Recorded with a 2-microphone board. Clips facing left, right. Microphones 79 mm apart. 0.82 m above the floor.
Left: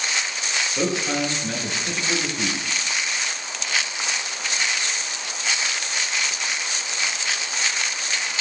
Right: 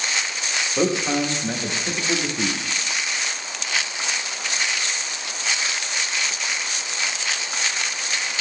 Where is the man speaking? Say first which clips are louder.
Right 3 dB; 30° right (ahead or behind), 0.7 m.